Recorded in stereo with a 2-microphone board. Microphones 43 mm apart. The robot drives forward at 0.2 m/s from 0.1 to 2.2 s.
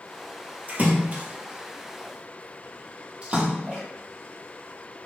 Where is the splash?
40° right (ahead or behind), 0.7 m; by 3.8 s 30° right (ahead or behind), 0.9 m.